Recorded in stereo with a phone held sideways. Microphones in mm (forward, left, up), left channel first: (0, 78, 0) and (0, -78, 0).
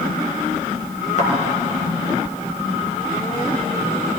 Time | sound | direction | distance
1.2 | a thud | 50° left (ahead or behind) | 4 m